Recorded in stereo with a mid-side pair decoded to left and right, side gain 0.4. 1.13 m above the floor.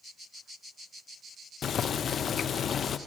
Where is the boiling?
60° left, 0.7 m.